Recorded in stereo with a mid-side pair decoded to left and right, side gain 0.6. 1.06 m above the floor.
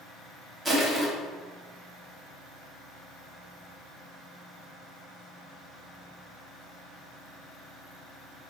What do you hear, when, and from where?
0.7 s crushing: 15° right, 1.3 m